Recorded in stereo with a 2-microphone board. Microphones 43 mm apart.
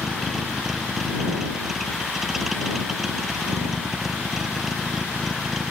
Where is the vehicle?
5° right (ahead or behind).